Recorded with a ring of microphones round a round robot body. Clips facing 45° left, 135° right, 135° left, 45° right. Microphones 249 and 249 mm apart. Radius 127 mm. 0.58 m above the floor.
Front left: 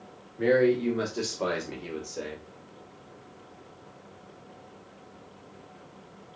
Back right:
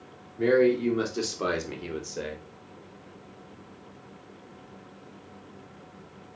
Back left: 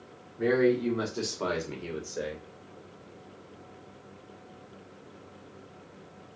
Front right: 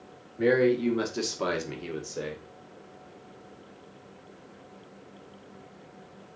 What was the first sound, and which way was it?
A man speaking, 60° right.